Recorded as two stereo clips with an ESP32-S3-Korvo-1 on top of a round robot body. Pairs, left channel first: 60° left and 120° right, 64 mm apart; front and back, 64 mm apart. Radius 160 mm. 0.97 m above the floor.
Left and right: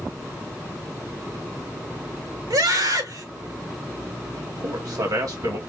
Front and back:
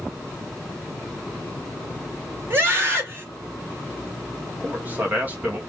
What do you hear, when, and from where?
2.5 s a scream: 125° right, 2.5 m
4.6 s a man speaking: 120° right, 1.2 m